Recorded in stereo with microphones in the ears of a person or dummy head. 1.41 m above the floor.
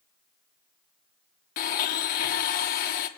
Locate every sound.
1.6 s a blender: 50° left (ahead or behind), 1.2 m